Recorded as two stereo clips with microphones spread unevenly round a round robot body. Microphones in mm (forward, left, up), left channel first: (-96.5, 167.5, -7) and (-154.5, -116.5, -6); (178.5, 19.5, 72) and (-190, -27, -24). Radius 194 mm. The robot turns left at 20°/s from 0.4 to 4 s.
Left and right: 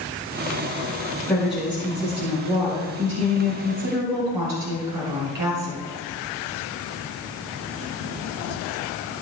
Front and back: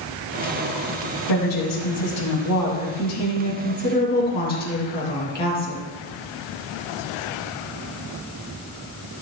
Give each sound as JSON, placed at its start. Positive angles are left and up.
{"t": 1.3, "sound": "a woman speaking", "azimuth_deg": -10, "distance_m": 3.5}